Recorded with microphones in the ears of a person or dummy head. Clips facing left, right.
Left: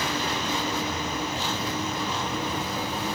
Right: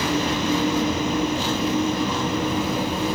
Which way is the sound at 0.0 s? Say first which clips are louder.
Right 7 dB; 55° right (ahead or behind).